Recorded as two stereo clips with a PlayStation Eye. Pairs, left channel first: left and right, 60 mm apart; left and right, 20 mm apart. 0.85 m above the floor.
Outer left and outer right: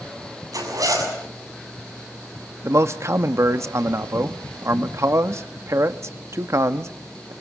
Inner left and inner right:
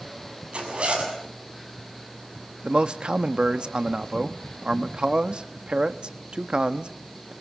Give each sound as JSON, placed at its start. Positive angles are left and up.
{"t": 0.5, "sound": "a zipper", "side_deg": -75, "distance_m": 7.0}
{"t": 2.6, "sound": "a man speaking", "side_deg": -55, "distance_m": 1.0}